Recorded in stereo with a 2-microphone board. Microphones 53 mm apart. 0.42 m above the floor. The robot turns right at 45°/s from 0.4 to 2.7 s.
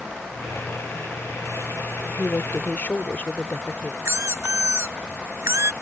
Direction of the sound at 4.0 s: 60° right (ahead or behind).